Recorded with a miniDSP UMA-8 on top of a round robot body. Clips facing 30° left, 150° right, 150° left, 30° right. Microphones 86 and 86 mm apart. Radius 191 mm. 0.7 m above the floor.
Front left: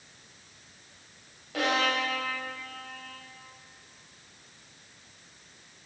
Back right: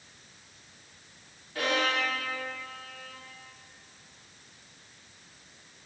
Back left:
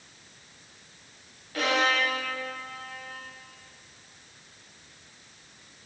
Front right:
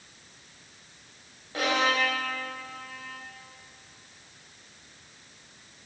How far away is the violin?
About 1.6 m.